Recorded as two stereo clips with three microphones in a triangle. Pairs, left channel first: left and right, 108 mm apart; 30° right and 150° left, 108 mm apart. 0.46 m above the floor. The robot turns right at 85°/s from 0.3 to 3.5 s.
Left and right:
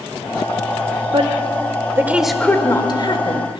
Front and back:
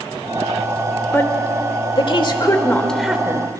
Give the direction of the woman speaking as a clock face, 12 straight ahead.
3 o'clock.